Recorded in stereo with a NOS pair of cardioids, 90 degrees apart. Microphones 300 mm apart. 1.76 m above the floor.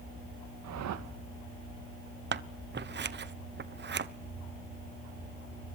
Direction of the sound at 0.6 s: 70° right.